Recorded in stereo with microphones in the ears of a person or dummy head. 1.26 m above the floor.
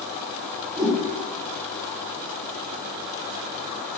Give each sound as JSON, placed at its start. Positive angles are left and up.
{"t": 0.8, "sound": "a whoosh", "side_deg": -20, "distance_m": 0.8}